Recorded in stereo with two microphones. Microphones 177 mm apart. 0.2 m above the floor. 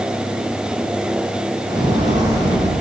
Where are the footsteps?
25° right (ahead or behind), 3.5 m; by 2.7 s 20° right (ahead or behind), 4.5 m.